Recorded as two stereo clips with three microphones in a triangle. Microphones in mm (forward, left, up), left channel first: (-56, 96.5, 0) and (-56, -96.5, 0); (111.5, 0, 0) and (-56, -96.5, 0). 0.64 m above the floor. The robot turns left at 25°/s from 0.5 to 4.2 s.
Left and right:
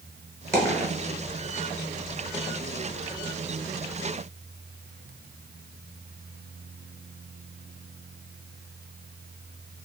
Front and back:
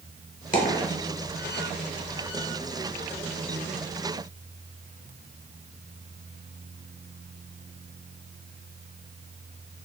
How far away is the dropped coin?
About 1.1 m.